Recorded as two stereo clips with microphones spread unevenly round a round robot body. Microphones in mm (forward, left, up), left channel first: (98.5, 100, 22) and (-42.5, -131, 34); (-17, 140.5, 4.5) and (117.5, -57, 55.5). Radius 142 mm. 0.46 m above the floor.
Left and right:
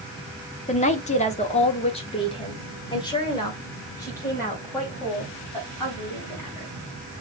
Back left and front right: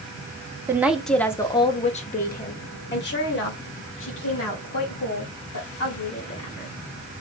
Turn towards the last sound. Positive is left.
turn(degrees=140)